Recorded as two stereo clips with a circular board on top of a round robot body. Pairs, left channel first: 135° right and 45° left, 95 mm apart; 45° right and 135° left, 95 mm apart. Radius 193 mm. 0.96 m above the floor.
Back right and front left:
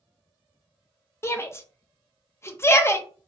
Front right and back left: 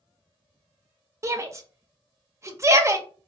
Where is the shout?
175° left, 0.6 m.